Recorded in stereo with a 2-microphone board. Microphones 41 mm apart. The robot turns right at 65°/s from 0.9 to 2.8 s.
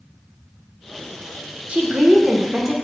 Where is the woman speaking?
30° right (ahead or behind), 1.0 m; by 2.7 s 10° right (ahead or behind), 1.0 m.